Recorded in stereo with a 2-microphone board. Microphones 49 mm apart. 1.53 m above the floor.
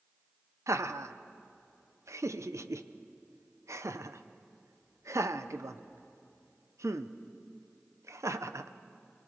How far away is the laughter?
About 0.9 m.